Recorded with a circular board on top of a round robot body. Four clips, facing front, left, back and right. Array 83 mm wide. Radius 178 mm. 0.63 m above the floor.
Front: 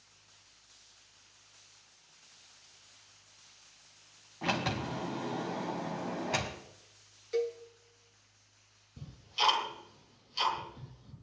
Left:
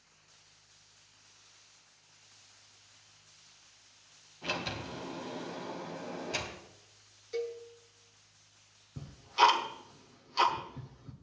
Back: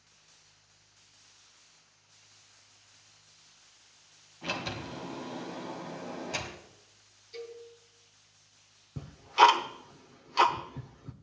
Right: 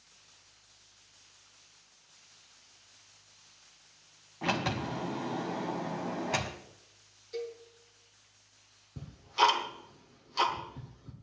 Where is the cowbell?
20° left, 1.1 m.